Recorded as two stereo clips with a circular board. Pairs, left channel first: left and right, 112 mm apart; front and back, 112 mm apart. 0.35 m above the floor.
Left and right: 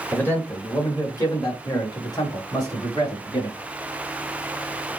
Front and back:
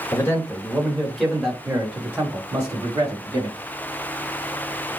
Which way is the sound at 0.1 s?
35° left.